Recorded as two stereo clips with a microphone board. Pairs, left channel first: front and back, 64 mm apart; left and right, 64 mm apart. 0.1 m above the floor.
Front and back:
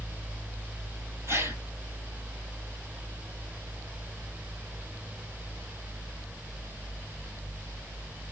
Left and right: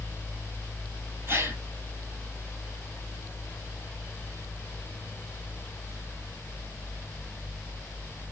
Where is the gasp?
135° right, 1.1 m.